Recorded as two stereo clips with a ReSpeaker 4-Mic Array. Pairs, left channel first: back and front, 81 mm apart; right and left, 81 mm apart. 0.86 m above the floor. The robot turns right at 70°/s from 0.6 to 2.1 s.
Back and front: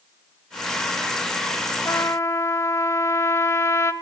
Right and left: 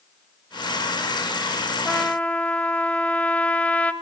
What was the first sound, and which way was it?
A trumpet, 170° right.